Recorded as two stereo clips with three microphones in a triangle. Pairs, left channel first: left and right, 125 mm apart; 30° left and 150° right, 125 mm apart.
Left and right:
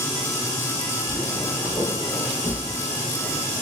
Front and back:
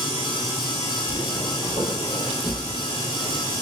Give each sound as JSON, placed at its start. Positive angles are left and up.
{"t": 1.1, "sound": "footsteps", "azimuth_deg": 15, "distance_m": 1.7}